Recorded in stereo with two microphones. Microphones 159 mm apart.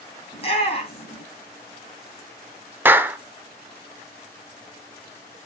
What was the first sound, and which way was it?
A shout, 35° left (ahead or behind).